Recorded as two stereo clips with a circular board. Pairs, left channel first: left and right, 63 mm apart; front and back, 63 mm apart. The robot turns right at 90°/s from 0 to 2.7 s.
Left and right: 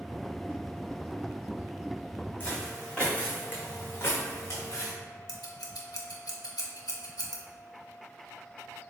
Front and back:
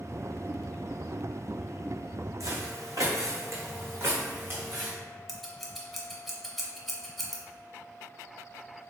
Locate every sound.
2.4 s footsteps: 150° left, 1.1 m; by 4.9 s 115° left, 1.4 m
5.3 s scissors: 90° left, 0.6 m